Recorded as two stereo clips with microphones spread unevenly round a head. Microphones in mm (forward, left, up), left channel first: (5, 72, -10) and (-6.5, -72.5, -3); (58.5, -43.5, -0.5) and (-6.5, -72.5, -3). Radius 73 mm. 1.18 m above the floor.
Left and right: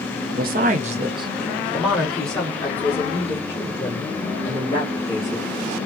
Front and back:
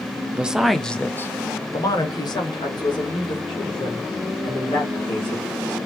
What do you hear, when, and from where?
0.3 s a woman speaking: 85° right, 0.7 m; by 5.8 s 25° left, 2.5 m